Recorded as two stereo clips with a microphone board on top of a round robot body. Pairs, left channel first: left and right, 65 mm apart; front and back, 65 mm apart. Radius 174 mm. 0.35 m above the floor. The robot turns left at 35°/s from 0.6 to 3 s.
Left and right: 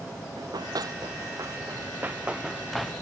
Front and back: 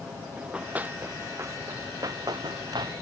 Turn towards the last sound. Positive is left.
turn(degrees=175)